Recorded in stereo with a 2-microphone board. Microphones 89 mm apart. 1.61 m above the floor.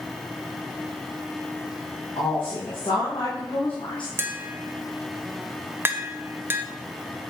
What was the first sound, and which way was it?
A woman speaking, 85° left.